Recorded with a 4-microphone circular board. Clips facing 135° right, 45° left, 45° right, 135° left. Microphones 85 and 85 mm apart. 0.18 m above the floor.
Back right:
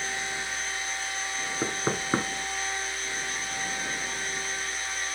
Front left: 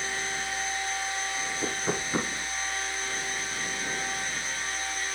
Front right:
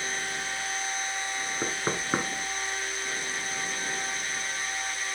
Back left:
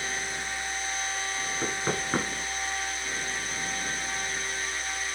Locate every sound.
1.6 s knocking: 115° right, 2.5 m